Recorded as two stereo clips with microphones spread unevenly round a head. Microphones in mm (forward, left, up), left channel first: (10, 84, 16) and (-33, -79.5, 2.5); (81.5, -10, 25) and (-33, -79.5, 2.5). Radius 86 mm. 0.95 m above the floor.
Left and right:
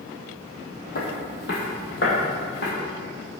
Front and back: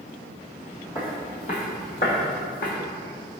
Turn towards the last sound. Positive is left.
turn(degrees=40)